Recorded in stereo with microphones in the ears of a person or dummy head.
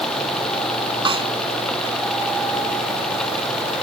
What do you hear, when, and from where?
1.1 s a snare drum: 20° right (ahead or behind)